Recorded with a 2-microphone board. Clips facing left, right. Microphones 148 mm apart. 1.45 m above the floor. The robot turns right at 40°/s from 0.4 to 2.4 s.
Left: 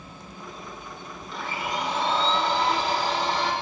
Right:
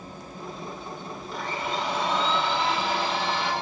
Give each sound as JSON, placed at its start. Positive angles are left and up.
{"t": 1.3, "sound": "a blender", "azimuth_deg": -5, "distance_m": 5.0}